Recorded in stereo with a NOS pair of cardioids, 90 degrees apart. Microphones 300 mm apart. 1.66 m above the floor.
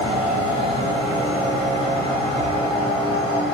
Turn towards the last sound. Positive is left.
turn(degrees=-10)